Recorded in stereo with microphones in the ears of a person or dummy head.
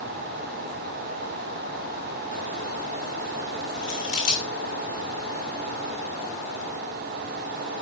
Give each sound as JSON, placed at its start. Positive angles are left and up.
{"t": 3.8, "sound": "scissors", "side_deg": 45, "distance_m": 2.5}